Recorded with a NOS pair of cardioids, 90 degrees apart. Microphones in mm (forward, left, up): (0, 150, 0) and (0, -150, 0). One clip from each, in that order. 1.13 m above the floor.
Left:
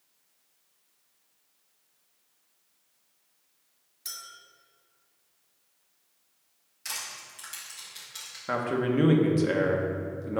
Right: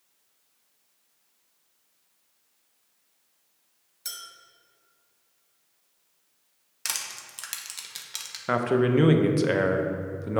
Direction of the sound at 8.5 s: 20° right.